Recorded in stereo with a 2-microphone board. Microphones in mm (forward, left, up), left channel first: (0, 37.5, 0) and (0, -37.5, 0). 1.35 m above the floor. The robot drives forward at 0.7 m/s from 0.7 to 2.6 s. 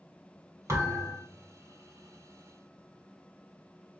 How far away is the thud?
About 1.8 m.